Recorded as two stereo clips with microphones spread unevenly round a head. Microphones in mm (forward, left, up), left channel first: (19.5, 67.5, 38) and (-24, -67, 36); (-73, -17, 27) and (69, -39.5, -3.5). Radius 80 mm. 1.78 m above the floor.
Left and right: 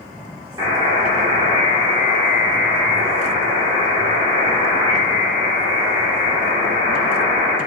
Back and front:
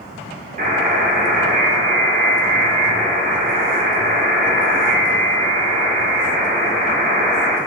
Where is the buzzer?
40° right, 1.1 m.